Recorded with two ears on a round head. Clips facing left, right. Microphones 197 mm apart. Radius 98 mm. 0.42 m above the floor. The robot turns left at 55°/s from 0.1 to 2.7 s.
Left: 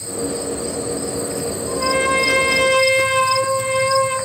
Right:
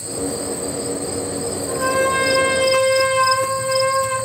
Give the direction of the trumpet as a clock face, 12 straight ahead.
8 o'clock.